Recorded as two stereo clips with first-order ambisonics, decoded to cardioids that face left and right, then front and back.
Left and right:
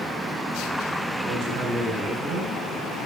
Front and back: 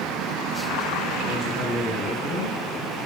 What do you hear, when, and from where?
1.2 s a man speaking: 60° right, 5.5 m